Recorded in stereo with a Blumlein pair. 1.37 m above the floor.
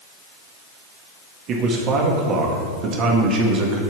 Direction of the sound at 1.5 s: 30° right.